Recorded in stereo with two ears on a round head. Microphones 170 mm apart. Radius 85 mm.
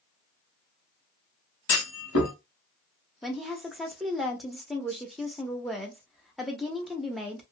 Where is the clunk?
75° left (ahead or behind), 1.7 m.